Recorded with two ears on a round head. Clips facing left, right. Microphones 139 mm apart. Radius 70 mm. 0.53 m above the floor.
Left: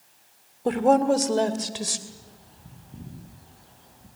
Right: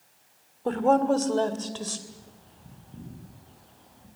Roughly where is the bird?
Centre.